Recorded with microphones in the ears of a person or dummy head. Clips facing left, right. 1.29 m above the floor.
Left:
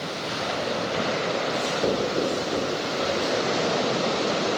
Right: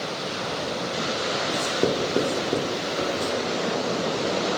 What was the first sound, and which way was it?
Writing, 45° right (ahead or behind).